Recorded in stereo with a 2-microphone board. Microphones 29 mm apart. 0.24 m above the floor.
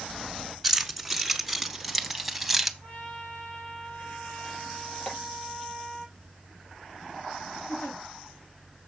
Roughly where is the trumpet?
Left.